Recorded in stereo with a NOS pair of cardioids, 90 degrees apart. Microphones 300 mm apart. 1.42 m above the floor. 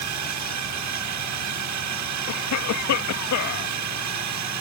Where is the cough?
70° left.